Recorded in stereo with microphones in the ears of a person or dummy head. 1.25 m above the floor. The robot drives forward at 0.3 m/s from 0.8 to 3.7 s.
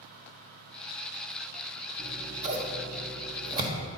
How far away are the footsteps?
I don't hear footsteps.